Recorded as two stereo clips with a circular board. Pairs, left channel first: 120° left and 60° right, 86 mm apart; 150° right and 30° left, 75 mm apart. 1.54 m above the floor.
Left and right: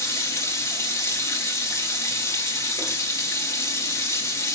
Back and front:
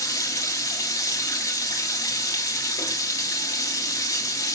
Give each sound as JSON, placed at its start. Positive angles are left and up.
{"t": 0.0, "sound": "running water", "azimuth_deg": 170, "distance_m": 1.8}